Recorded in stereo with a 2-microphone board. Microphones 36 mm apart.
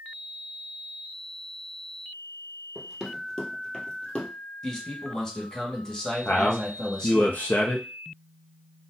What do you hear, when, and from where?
2.8 s running footsteps: 5° left (ahead or behind), 1.5 m; by 4.3 s 25° left (ahead or behind), 1.6 m
4.6 s a man speaking: 10° left (ahead or behind), 2 m
6.2 s a man speaking: 60° left (ahead or behind), 0.7 m